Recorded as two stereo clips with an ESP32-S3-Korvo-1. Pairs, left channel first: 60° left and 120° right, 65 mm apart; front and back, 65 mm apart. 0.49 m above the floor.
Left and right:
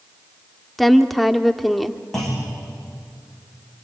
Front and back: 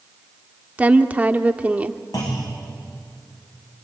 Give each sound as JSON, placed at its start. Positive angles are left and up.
{"t": 0.8, "sound": "a woman speaking", "azimuth_deg": 150, "distance_m": 0.9}
{"t": 2.1, "sound": "a clunk", "azimuth_deg": -25, "distance_m": 6.0}